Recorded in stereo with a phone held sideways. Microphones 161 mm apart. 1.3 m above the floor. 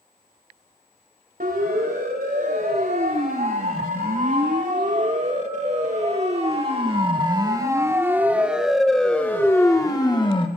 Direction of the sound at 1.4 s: 65° right (ahead or behind).